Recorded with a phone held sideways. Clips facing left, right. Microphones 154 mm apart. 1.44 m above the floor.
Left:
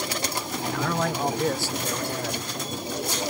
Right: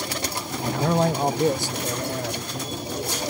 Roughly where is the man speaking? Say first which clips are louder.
Right 6 dB; right.